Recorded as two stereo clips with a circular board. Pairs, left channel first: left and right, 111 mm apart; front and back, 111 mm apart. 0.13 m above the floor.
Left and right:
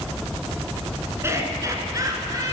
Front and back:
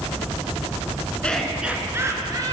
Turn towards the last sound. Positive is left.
turn(degrees=-140)